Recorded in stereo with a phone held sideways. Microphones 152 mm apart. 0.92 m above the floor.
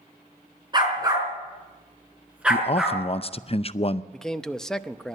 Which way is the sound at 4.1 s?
5° left (ahead or behind).